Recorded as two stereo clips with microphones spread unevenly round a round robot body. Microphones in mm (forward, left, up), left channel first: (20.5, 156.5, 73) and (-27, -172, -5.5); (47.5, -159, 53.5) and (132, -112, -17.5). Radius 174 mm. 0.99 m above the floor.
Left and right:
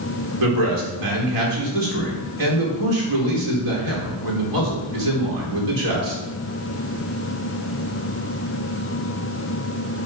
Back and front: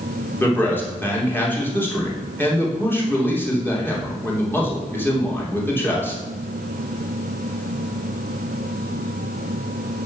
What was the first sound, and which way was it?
A man speaking, 75° right.